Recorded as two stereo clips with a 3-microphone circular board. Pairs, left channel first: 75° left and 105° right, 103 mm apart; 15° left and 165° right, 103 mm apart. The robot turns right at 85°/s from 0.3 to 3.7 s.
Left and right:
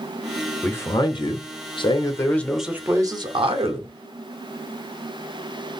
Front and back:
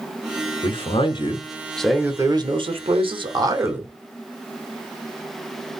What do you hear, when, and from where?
0.6 s a man speaking: straight ahead, 0.8 m; by 3.9 s 100° right, 0.8 m